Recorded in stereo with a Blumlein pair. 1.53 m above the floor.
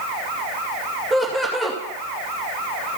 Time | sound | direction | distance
1.1 | laughter | 10° right | 2.5 m